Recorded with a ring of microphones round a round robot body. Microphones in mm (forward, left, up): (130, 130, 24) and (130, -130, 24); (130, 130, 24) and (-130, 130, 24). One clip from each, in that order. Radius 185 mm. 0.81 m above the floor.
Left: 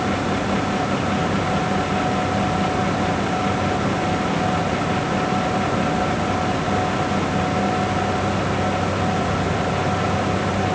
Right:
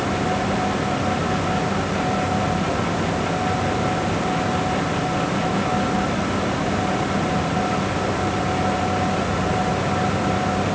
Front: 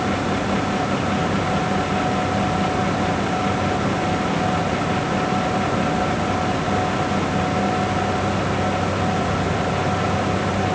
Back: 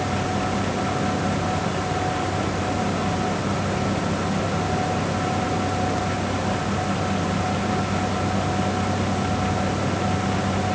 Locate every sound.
Only background noise.